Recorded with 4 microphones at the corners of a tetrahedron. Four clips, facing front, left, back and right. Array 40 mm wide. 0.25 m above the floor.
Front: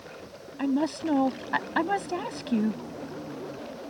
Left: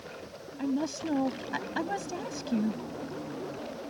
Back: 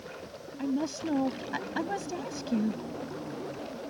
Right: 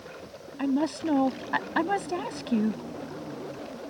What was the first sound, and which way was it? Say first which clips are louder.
A woman speaking: right 4 dB, front 5 dB; 40° right.